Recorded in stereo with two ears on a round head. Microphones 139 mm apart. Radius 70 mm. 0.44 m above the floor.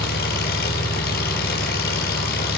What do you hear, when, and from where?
0.0 s an engine running: 60° left (ahead or behind), 7 m